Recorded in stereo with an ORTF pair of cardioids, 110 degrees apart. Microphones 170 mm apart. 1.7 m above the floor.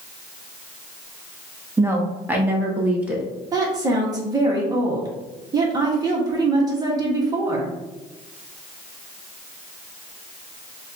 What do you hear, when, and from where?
1.8 s a woman speaking: 15° right, 0.9 m; by 3.2 s 10° right, 1.9 m
3.5 s a woman speaking: 25° right, 1.3 m